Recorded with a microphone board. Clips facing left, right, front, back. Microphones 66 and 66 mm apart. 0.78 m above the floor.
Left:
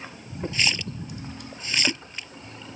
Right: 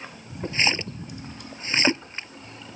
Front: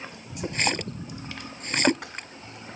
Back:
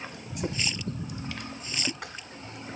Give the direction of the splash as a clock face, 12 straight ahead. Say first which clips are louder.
Right 3 dB, front 6 dB; 1 o'clock.